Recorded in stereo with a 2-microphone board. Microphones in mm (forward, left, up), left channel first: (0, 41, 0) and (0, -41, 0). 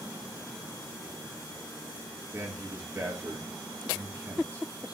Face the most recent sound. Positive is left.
turn(degrees=-35)  # may be behind; listen again after turning